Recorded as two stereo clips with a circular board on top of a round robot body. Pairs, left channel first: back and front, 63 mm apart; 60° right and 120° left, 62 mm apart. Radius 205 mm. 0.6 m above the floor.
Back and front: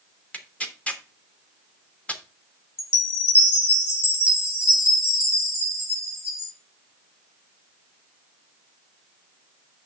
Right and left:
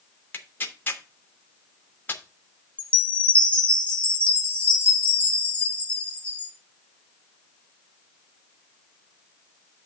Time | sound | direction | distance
0.3 | tearing paper | 110° right | 1.4 m
2.8 | a chime | 130° right | 1.2 m